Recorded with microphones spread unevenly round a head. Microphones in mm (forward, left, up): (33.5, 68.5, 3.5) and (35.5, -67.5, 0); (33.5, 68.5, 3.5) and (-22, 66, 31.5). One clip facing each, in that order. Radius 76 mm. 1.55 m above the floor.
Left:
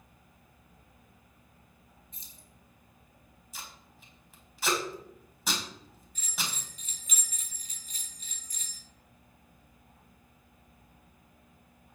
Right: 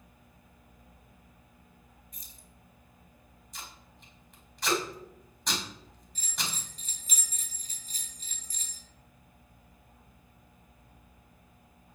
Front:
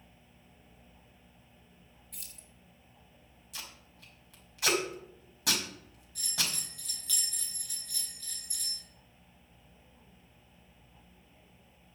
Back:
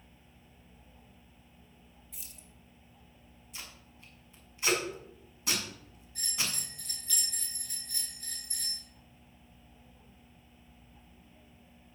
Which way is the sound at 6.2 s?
30° right.